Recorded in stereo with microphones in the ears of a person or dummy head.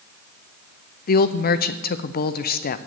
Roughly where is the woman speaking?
Left.